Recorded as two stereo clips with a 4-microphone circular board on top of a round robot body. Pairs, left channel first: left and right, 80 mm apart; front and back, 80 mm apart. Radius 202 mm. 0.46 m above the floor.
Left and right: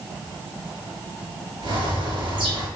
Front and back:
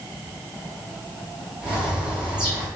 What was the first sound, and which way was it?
A bird, 100° right.